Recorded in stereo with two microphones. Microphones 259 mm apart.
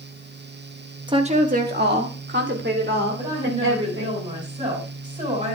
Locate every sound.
1.1 s a woman speaking: 15° right (ahead or behind), 1.2 m; by 4.2 s 55° right (ahead or behind), 5 m
3.2 s a woman speaking: 30° right (ahead or behind), 7.5 m